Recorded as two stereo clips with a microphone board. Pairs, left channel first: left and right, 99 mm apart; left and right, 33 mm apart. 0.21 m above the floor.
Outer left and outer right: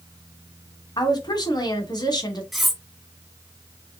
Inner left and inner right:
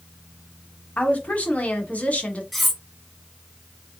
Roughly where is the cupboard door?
I don't hear a cupboard door.